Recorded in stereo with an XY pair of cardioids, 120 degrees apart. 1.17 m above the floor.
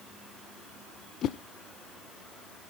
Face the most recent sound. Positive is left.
turn(degrees=60)